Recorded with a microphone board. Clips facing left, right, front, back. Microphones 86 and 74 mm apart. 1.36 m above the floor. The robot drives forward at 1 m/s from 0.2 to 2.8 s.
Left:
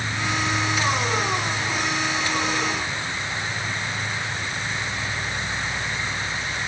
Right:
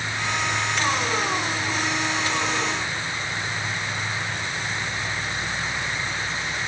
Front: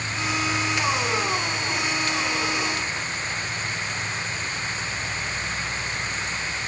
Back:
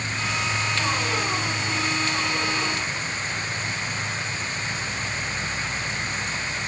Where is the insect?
125° left, 2.5 m; by 6.7 s 155° left, 4.5 m.